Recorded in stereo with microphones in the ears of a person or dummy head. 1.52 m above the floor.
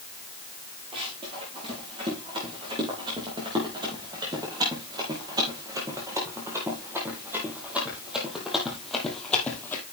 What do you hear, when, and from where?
0.9 s running footsteps: 30° right (ahead or behind), 6 m; by 9.8 s 10° left (ahead or behind), 2.5 m